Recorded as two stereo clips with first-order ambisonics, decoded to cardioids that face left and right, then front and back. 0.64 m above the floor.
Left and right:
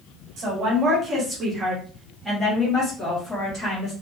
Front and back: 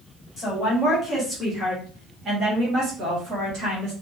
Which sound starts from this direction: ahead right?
A woman speaking, at 0.4 s.